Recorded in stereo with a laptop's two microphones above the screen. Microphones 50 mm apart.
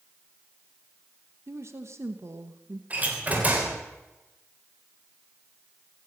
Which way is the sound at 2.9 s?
30° right (ahead or behind).